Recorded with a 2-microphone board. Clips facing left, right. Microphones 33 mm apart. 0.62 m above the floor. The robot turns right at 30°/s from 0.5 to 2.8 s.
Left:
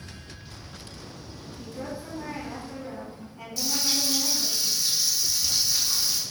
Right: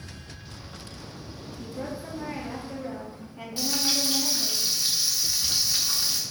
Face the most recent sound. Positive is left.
turn(degrees=-30)  # may be behind; listen again after turning